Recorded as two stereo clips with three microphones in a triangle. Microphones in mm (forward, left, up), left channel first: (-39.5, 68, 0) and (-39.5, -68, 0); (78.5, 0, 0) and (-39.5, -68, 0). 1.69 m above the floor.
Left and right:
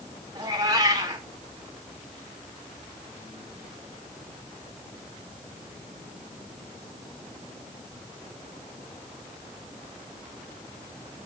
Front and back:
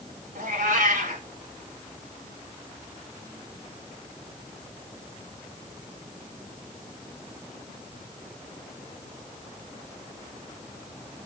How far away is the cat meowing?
About 3 m.